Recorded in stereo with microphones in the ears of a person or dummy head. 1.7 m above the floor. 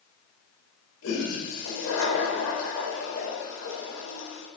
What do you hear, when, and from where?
1.0 s a toilet flushing: 80° left, 4 m